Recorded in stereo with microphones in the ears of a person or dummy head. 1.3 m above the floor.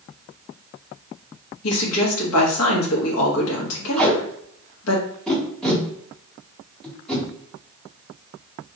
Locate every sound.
1.6 s a woman speaking: 80° left, 1.7 m
4.0 s tape being pulled: 5° left (ahead or behind), 1.9 m